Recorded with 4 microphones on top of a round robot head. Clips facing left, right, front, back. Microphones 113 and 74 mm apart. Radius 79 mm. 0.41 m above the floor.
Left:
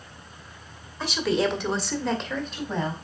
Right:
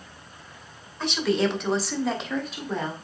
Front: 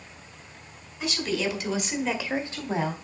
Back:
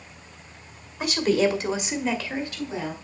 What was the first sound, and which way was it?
A woman speaking, 175° left.